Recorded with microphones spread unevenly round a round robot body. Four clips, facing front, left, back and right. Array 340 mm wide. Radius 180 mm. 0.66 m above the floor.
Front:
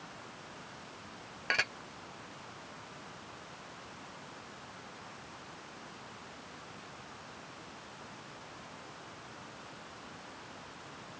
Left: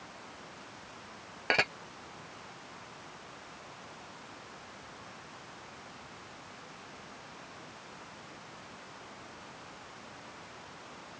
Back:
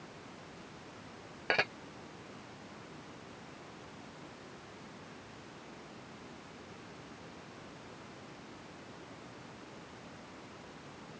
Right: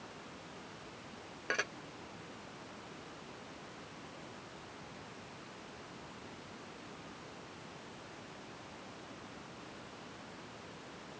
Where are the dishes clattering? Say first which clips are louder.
Left 7 dB, back 2 dB; 105° left.